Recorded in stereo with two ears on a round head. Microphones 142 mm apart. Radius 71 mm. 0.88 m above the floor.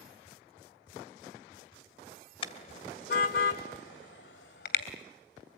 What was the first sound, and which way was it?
A car horn, 40° left (ahead or behind).